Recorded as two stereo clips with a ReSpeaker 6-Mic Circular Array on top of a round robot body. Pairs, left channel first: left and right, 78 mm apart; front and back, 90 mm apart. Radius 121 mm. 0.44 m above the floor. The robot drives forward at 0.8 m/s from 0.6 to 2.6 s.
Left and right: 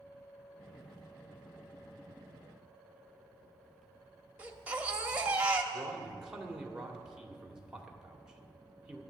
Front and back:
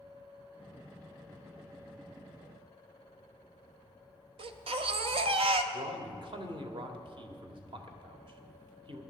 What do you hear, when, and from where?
4.4 s a baby crying: 160° right, 0.8 m
5.7 s a man speaking: 170° right, 1.7 m